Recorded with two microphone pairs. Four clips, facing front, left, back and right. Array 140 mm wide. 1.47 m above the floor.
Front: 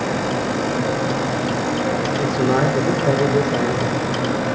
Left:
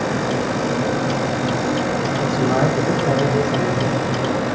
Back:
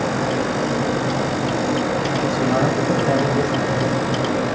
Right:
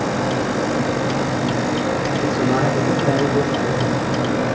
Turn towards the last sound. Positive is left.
turn(degrees=5)